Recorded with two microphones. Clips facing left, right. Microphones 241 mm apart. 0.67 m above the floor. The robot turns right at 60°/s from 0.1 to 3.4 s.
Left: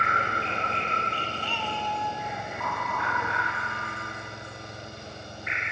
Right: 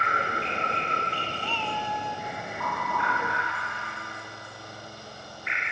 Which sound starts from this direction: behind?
A cat meowing, at 1.4 s.